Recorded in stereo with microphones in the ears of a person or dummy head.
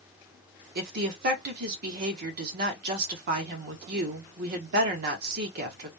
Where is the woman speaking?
55° right (ahead or behind), 0.9 m.